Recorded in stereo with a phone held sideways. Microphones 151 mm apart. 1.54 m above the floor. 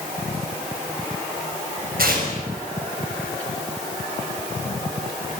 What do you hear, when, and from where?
2.0 s tearing paper: 80° right, 6.5 m